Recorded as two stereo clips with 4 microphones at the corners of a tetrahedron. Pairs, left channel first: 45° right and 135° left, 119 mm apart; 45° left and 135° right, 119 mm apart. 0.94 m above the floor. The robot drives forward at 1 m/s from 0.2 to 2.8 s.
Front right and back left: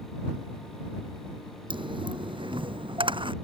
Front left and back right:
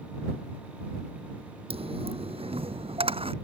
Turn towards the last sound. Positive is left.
turn(degrees=-175)